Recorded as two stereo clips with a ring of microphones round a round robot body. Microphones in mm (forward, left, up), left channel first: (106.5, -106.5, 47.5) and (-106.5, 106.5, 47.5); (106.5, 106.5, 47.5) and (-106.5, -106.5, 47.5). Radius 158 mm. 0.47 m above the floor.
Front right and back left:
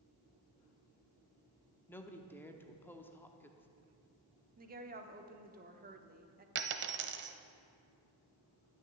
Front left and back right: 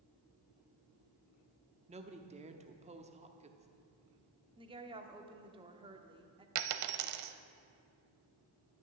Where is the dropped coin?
170° right, 0.6 m.